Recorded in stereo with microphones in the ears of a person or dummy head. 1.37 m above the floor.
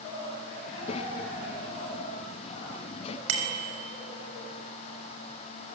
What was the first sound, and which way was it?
A child speaking, 35° left (ahead or behind).